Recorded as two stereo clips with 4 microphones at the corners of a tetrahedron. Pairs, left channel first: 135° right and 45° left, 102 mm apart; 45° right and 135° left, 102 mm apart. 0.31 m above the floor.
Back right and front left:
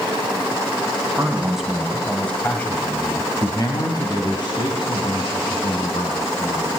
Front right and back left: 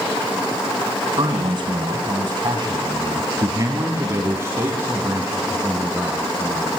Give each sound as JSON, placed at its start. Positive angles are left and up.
{"t": 1.2, "sound": "a man speaking", "azimuth_deg": 120, "distance_m": 2.5}